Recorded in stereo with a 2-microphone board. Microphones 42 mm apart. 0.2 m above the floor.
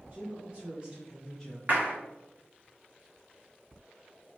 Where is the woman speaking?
45° right (ahead or behind), 1.7 m; by 1.6 s 15° left (ahead or behind), 1.2 m.